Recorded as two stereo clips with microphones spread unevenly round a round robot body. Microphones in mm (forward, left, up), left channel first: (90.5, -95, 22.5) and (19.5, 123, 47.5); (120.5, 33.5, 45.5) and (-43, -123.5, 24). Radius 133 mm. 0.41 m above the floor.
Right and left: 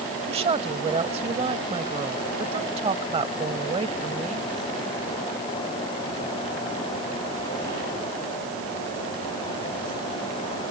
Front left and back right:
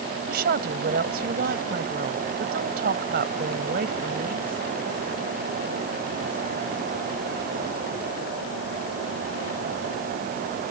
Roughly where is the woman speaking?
Behind.